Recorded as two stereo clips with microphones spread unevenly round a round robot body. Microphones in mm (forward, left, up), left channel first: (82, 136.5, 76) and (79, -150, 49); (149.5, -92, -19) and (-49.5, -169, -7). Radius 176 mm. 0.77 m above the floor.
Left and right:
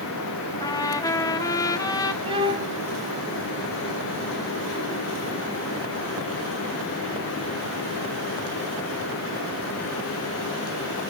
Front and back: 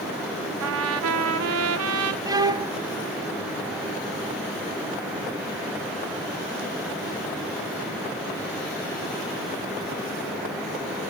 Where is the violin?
155° right, 0.6 m.